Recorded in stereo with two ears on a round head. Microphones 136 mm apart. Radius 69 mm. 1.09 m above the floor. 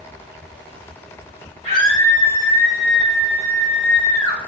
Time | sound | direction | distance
1.6 | a scream | 45° left (ahead or behind) | 4.5 m